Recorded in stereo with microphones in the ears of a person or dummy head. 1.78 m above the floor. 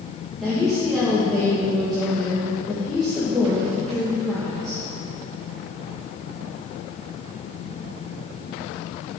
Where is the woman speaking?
10° left (ahead or behind), 2.5 m.